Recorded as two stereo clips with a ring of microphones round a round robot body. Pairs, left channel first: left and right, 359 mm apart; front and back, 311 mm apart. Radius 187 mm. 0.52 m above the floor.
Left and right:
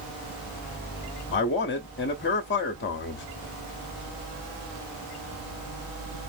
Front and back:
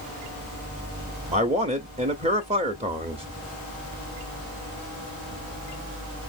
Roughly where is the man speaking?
Behind left.